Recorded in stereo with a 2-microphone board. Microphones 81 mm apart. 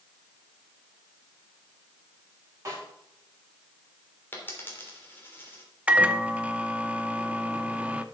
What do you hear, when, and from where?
2.6 s a snare drum: 40° right (ahead or behind), 6.5 m
4.3 s a dropped coin: 25° left (ahead or behind), 2.5 m
5.9 s a microwave: 15° right (ahead or behind), 0.6 m